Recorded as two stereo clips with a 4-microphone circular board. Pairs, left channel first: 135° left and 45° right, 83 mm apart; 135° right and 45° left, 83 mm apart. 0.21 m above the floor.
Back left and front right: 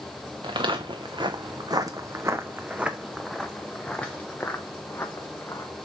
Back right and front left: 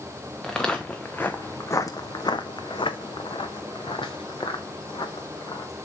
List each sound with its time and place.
0.4 s footsteps: 50° right, 1.2 m; by 5.7 s 165° right, 2.0 m